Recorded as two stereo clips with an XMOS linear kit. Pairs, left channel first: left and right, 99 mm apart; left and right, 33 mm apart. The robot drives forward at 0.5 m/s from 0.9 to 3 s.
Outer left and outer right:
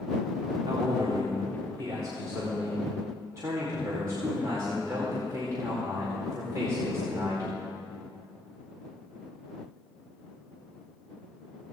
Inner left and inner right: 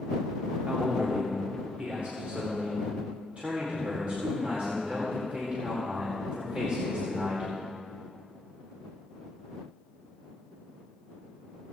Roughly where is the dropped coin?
I don't hear a dropped coin.